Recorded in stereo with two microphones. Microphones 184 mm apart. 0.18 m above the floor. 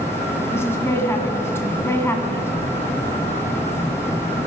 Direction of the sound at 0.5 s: 15° left (ahead or behind).